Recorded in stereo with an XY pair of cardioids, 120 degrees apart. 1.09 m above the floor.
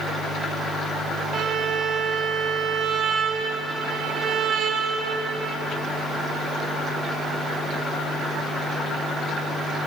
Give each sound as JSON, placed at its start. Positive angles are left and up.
{"t": 1.3, "sound": "a violin", "azimuth_deg": -45, "distance_m": 4.0}